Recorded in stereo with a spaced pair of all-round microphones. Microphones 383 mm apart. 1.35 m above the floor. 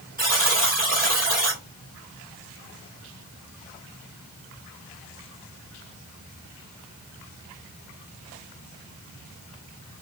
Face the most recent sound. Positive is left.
turn(degrees=-25)  # may be behind; listen again after turning